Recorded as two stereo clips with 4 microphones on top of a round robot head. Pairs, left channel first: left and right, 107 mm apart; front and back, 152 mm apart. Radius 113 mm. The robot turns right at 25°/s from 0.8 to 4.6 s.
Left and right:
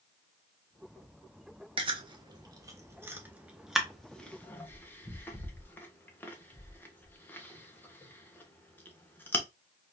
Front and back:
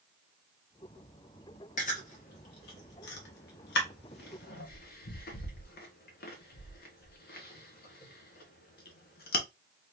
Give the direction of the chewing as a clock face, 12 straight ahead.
2 o'clock.